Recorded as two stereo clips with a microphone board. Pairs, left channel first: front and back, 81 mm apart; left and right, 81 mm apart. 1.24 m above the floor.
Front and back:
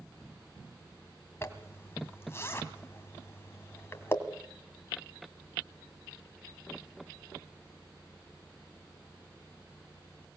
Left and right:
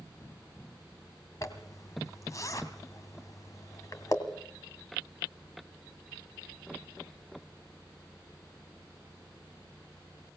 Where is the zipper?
55° left, 1.9 m.